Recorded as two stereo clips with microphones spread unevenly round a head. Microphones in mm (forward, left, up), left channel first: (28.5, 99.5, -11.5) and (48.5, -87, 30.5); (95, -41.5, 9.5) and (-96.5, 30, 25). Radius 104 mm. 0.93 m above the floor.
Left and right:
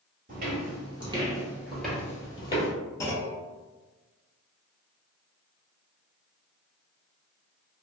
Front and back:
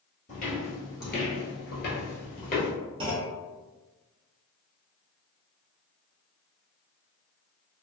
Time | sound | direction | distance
0.3 | footsteps | 75° right | 1.5 m
3.0 | a clunk | straight behind | 0.6 m